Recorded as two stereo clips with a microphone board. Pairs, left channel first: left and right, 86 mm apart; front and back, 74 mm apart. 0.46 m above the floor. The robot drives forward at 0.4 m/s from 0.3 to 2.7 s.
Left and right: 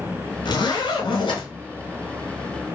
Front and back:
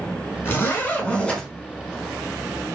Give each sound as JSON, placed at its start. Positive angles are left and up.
{"t": 0.5, "sound": "a zipper", "azimuth_deg": 60, "distance_m": 1.1}